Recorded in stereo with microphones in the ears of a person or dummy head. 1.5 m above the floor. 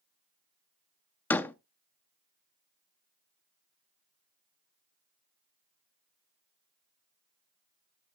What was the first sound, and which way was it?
A door slam, 15° left (ahead or behind).